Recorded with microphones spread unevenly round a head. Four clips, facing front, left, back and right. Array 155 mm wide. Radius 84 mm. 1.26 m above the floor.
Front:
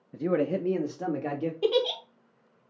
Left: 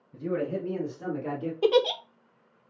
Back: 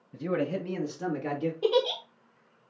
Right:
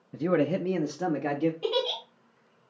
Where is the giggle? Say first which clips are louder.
Left 6 dB, even; 90° left, 0.9 m.